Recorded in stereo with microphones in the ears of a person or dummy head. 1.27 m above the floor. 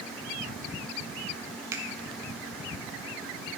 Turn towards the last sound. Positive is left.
turn(degrees=-15)  # may be behind; listen again after turning